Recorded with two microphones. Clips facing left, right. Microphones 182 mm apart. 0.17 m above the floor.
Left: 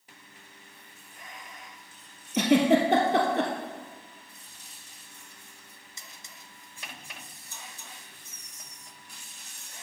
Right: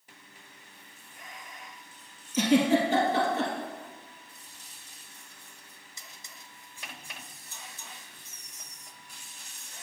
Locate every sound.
2.3 s a giggle: 65° left (ahead or behind), 1.7 m